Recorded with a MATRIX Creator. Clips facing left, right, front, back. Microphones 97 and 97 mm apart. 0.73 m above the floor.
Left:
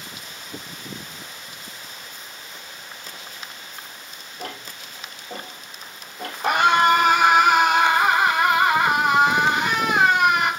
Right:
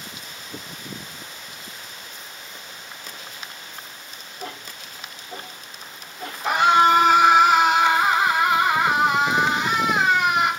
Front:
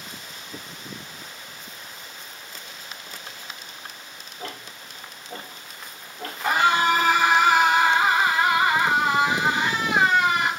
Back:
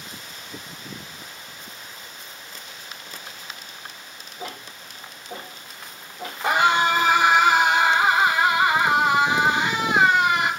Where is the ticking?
100° left, 3.5 m.